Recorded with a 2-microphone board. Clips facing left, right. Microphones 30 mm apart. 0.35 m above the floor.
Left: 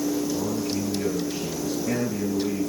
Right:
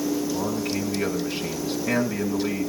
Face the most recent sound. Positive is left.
turn(degrees=-40)  # may be behind; listen again after turning